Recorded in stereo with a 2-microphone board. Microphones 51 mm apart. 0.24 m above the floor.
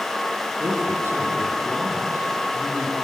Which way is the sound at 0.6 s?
60° right (ahead or behind).